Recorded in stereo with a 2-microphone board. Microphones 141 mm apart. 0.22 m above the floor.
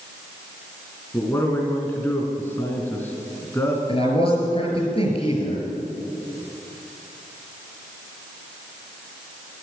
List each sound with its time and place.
1.1 s a man speaking: 20° left (ahead or behind), 2.5 m
3.9 s a man speaking: 45° left (ahead or behind), 5 m